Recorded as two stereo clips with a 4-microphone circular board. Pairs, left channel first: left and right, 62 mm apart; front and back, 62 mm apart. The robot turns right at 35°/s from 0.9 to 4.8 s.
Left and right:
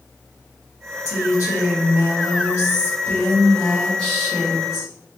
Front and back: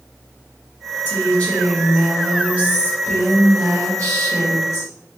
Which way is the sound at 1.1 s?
60° left.